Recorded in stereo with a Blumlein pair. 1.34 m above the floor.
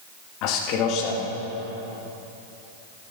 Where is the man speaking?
40° left, 2.0 m.